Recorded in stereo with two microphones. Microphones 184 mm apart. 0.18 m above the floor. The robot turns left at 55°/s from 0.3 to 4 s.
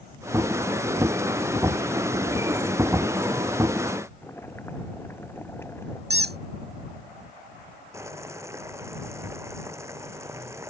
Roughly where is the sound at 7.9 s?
Centre.